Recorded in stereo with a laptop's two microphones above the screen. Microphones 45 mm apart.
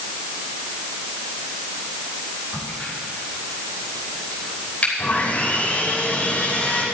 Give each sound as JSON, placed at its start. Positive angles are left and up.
{"t": 2.5, "sound": "a crack", "side_deg": 25, "distance_m": 4.0}
{"t": 5.0, "sound": "sawing", "side_deg": 30, "distance_m": 4.0}